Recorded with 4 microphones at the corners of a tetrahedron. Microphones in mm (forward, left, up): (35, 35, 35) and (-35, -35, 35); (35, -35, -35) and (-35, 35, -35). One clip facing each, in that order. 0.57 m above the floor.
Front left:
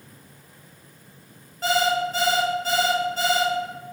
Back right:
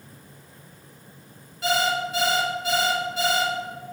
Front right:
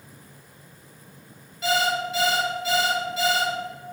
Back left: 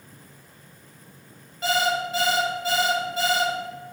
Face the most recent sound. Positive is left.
turn(degrees=85)